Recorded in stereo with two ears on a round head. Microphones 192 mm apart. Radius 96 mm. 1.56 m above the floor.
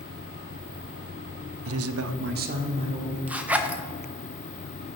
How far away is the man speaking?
About 0.6 m.